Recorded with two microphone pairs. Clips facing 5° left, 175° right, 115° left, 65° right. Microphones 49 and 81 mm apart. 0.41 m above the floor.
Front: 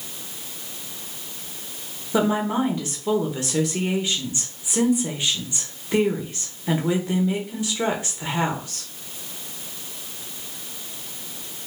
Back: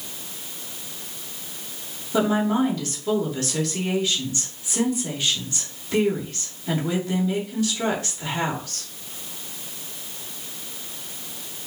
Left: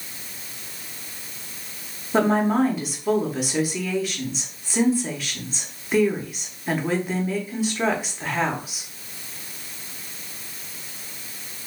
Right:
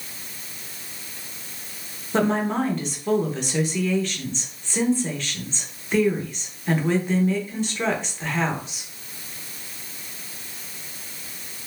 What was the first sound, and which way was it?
A woman speaking, 30° left.